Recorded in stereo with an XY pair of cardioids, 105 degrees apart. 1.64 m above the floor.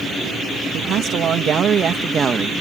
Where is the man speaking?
65° right; by 2.5 s 35° right.